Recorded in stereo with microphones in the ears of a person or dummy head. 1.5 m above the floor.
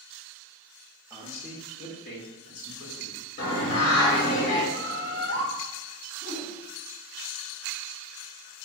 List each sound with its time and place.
1.1 s a man speaking: 5° right (ahead or behind), 0.7 m; by 3.3 s 80° left, 2 m
3.4 s singing: 75° left (ahead or behind), 1.4 m
4.7 s a bird: 20° left (ahead or behind), 0.7 m
6.2 s a whoosh: 80° left, 1.9 m